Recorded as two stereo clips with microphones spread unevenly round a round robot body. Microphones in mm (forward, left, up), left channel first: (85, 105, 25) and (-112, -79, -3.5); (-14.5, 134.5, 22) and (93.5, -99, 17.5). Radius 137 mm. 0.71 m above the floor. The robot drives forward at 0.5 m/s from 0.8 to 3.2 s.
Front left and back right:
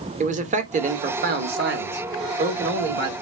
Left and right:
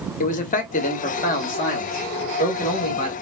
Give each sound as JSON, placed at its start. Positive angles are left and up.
{"t": 0.2, "sound": "a man speaking", "azimuth_deg": 170, "distance_m": 0.6}